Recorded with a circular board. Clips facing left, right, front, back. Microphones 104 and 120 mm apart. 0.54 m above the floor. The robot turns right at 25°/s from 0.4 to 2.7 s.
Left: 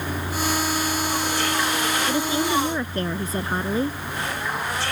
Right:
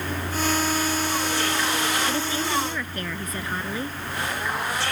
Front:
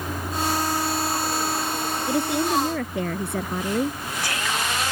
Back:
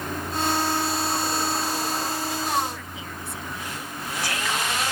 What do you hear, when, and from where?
2.1 s a woman speaking: 15° left; by 4.0 s 30° left